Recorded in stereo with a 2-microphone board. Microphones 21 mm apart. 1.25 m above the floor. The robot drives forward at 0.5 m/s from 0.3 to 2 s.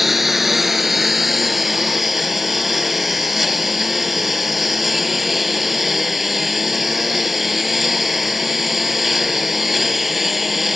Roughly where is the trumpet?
I don't hear a trumpet.